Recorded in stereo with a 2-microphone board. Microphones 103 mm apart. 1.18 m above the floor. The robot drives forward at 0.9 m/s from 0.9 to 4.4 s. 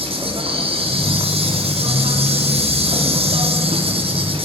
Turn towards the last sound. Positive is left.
turn(degrees=-65)  # may be behind; listen again after turning